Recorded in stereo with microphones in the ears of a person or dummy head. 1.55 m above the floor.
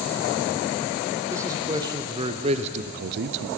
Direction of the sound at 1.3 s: 15° right (ahead or behind).